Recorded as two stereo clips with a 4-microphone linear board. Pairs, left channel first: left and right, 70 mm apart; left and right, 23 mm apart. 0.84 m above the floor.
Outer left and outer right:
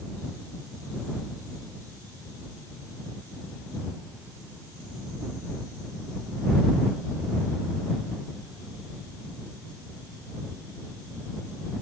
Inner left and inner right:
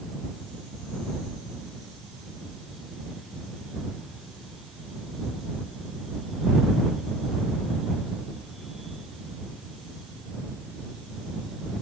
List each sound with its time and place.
Only background noise.